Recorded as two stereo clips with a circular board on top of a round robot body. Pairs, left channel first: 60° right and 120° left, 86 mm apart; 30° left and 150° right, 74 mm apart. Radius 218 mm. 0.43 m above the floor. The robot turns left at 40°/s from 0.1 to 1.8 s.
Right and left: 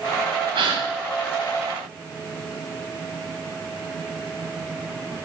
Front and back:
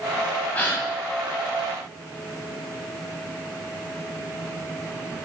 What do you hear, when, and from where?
0.6 s a gasp: 105° left, 3 m; by 0.8 s 90° left, 3 m